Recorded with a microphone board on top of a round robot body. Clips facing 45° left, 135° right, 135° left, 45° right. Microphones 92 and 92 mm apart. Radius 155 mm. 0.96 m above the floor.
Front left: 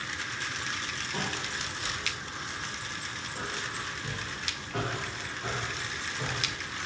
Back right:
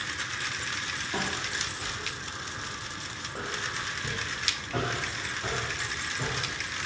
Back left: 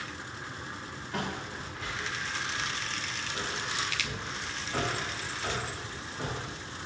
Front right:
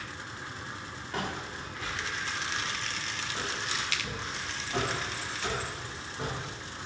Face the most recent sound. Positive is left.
turn(degrees=-130)